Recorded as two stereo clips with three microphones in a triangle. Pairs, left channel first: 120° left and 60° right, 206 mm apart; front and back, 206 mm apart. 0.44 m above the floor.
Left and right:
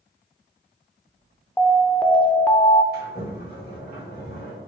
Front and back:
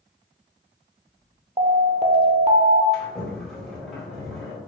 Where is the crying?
No crying in this recording.